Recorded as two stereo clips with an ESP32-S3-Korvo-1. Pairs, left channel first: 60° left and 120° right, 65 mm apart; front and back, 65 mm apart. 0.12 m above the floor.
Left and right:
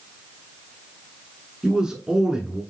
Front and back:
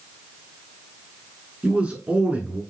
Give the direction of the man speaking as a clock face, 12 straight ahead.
6 o'clock.